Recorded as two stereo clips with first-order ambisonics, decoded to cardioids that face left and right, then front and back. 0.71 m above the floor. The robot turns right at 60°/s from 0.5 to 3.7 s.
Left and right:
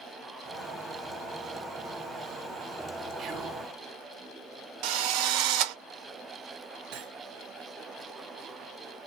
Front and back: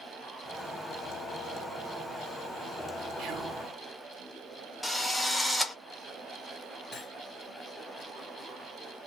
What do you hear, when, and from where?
3.2 s whispering: 140° right, 1.5 m; by 3.6 s 115° right, 1.5 m
4.8 s a drill: 90° right, 0.9 m
6.9 s cutlery clinking: 75° right, 2 m